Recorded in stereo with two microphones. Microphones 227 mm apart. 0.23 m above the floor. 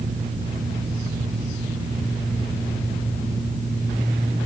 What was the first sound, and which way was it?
Only background noise.